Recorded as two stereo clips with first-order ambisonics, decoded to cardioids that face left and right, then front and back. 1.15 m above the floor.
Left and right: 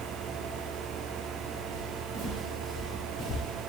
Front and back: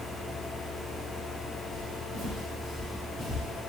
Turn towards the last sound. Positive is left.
turn(degrees=85)